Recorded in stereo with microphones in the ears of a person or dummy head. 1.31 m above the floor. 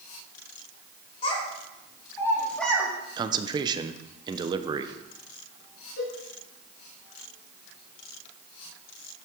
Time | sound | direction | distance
1.2 | a child speaking | 35° left (ahead or behind) | 1.8 m
3.2 | a man speaking | 25° right (ahead or behind) | 0.6 m
6.0 | a cowbell | 60° left (ahead or behind) | 3 m